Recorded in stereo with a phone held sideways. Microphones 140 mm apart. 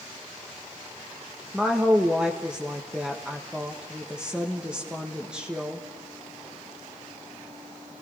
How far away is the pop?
I don't hear a pop.